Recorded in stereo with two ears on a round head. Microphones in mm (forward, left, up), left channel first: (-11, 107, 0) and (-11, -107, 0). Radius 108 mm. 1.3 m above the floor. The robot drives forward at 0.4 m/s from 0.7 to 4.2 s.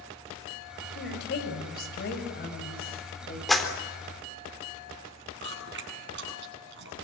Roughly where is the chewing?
Right.